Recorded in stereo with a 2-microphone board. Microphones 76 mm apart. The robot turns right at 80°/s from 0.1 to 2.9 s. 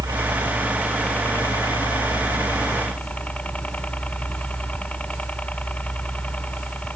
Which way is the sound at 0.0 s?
65° right.